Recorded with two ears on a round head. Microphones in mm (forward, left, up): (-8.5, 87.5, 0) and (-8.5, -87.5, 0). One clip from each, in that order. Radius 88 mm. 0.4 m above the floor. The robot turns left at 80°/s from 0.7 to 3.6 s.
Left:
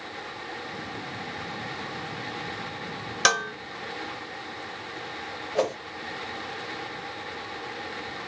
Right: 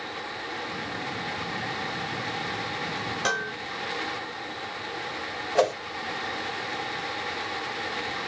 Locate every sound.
3.2 s dishes clattering: 55° left (ahead or behind), 1.1 m; by 3.5 s 60° left (ahead or behind), 1.1 m
5.5 s a whoosh: 40° right (ahead or behind), 1.4 m